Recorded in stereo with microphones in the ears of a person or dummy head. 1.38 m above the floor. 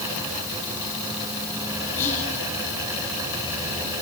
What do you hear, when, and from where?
2.0 s whispering: 45° left (ahead or behind), 6 m